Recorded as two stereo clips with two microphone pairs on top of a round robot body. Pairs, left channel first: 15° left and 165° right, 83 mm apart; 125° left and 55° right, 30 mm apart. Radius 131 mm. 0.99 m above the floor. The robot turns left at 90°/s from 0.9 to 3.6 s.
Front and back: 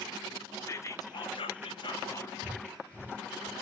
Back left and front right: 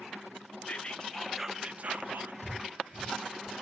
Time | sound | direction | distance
0.7 | whispering | 70° left | 0.8 m
2.4 | breathing | 130° left | 0.9 m